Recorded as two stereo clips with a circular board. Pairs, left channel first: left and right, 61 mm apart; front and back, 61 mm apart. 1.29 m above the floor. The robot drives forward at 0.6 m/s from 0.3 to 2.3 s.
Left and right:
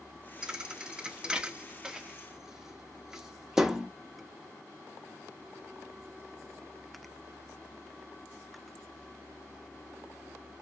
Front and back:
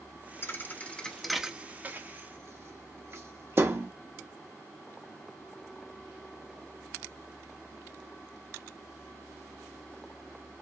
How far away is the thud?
About 0.8 m.